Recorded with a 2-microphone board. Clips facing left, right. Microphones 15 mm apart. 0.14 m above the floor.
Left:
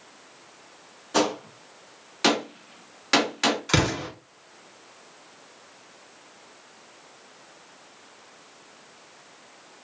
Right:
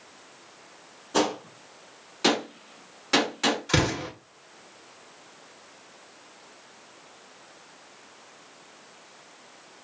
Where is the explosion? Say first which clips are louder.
Left 1 dB; 35° left (ahead or behind), 1.5 m.